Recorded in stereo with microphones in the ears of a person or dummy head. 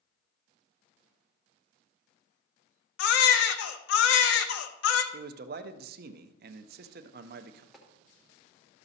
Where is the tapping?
Centre (ahead or behind), 1.0 m.